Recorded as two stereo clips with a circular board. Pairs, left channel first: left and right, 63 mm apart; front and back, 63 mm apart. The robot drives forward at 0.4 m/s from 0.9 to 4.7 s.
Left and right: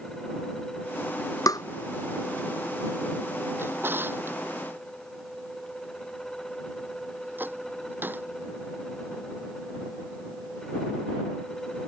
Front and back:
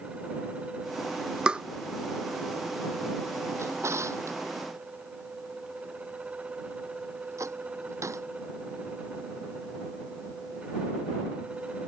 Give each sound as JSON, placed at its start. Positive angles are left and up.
{"t": 1.5, "sound": "tapping", "azimuth_deg": 105}
{"t": 3.6, "sound": "a drawer", "azimuth_deg": -140}